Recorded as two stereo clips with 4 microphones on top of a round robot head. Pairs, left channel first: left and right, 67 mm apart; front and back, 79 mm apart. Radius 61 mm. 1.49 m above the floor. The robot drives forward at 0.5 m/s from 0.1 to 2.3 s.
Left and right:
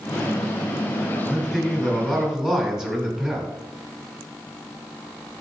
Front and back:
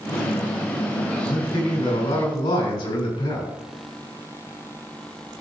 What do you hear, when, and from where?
1.3 s a man speaking: 5° right, 4 m; by 3.5 s 10° right, 3.5 m